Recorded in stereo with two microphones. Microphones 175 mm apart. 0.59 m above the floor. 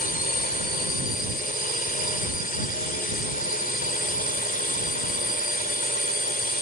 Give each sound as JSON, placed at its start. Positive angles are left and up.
{"t": 0.0, "sound": "a drone", "side_deg": 55}